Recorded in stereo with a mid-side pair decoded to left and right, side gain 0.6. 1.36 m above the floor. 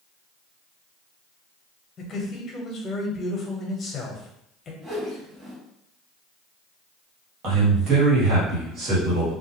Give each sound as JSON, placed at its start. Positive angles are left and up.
{"t": 2.0, "sound": "a man speaking", "azimuth_deg": 35, "distance_m": 1.1}
{"t": 4.8, "sound": "a whoosh", "azimuth_deg": -30, "distance_m": 1.8}
{"t": 7.4, "sound": "a man speaking", "azimuth_deg": -55, "distance_m": 1.4}